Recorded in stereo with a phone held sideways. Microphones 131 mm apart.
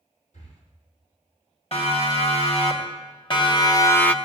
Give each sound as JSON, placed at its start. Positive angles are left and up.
{"t": 0.3, "sound": "breathing", "side_deg": 65, "distance_m": 3.5}
{"t": 1.7, "sound": "a siren", "side_deg": 50, "distance_m": 3.5}